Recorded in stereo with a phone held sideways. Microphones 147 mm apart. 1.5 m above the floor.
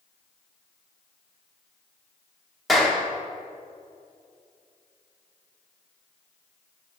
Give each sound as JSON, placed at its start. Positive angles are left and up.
{"t": 2.7, "sound": "a clap", "side_deg": 0, "distance_m": 3.0}